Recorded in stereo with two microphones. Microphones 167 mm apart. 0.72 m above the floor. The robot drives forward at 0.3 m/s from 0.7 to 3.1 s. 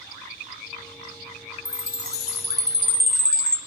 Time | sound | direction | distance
1.6 | a chime | 80° left | 1.2 m